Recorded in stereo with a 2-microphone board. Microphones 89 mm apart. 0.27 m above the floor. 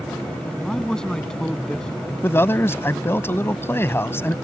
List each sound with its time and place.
0.5 s a man speaking: 5° left (ahead or behind)
2.2 s a man speaking: 25° left (ahead or behind)